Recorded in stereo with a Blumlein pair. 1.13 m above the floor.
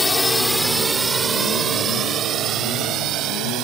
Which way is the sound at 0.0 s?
5° left.